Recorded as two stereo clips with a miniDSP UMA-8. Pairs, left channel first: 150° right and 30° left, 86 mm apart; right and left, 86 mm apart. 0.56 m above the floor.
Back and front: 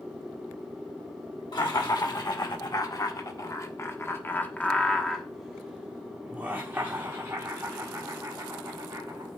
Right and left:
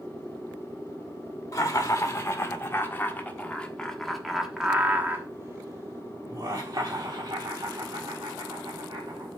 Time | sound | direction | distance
1.5 | laughter | 135° right | 1.9 m